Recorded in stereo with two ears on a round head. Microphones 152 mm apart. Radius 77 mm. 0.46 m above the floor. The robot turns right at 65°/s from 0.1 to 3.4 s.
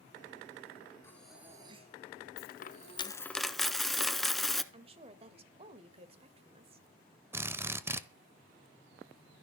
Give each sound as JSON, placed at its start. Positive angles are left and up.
{"t": 1.0, "sound": "breathing", "azimuth_deg": 165, "distance_m": 3.5}
{"t": 2.4, "sound": "a dropped coin", "azimuth_deg": 110, "distance_m": 1.0}
{"t": 4.7, "sound": "a woman speaking", "side_deg": -35, "distance_m": 1.8}
{"t": 7.3, "sound": "a drill", "side_deg": -15, "distance_m": 1.0}